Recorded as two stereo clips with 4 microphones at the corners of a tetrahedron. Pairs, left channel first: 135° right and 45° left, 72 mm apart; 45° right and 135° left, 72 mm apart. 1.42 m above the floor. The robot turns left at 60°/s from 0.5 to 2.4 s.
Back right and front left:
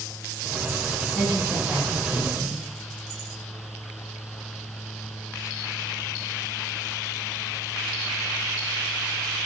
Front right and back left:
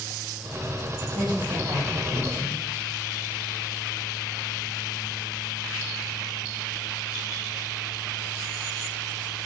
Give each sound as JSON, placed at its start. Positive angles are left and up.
{"t": 1.1, "sound": "a woman speaking", "azimuth_deg": 140, "distance_m": 1.5}